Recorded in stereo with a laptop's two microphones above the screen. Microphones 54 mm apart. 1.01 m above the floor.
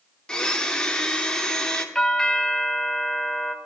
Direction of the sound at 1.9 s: 10° left (ahead or behind).